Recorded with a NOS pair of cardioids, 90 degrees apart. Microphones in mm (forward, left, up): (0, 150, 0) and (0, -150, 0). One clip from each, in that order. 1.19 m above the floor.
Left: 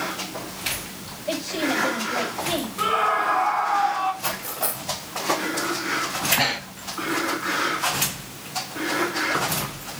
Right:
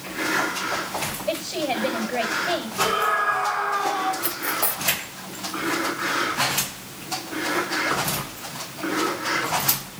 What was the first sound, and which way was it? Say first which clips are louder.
A woman speaking: left 2 dB; 20° right.